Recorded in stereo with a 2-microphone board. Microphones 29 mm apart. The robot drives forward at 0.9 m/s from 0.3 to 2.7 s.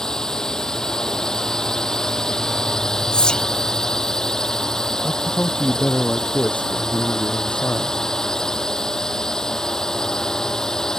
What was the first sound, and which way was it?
A drone, 20° left (ahead or behind).